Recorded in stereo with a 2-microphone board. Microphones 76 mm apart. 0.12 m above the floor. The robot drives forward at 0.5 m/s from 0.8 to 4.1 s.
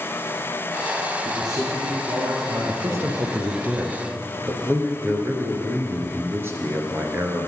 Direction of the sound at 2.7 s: 40° right (ahead or behind).